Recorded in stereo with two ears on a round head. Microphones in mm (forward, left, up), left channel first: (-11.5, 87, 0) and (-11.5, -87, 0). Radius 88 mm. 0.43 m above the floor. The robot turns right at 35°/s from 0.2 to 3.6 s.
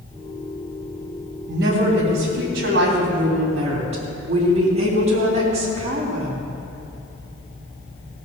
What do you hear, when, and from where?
1.5 s a woman speaking: 110° right, 3 m; by 6.5 s 35° right, 3 m